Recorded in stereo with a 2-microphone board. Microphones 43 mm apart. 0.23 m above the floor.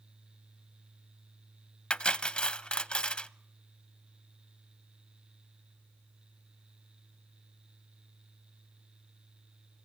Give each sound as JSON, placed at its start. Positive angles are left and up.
{"t": 1.9, "sound": "cutlery clinking", "side_deg": 25, "distance_m": 0.5}